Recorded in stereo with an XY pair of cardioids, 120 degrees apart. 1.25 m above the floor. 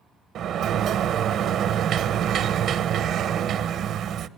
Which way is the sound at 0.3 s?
60° right.